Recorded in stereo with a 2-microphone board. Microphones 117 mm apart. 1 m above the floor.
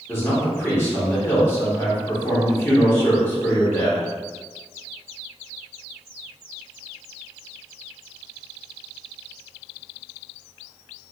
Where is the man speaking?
20° left (ahead or behind), 2.0 m.